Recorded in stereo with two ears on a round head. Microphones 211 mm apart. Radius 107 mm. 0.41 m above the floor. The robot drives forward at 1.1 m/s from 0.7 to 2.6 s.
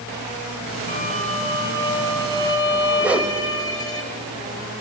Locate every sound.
0.9 s a violin: 40° left (ahead or behind), 1.6 m; by 4.0 s 20° left (ahead or behind), 3.5 m
3.0 s a whoosh: 5° right (ahead or behind), 1.2 m